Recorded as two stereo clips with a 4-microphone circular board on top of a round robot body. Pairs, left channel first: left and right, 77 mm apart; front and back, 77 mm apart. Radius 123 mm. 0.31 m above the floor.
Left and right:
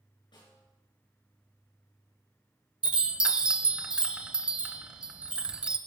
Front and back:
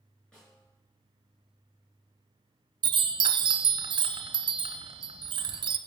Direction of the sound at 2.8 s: 165° right.